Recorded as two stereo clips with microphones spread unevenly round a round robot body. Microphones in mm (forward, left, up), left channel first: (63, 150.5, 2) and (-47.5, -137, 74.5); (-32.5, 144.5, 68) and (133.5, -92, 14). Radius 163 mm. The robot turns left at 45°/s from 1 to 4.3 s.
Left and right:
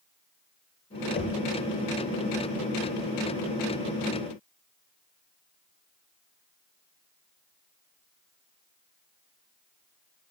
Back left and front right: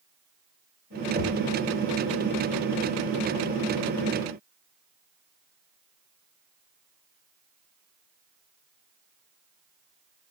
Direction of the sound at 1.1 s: 10° left.